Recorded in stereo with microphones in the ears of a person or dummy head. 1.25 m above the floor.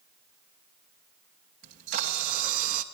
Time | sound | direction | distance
1.6 | a camera shutter | 40° right (ahead or behind) | 2.5 m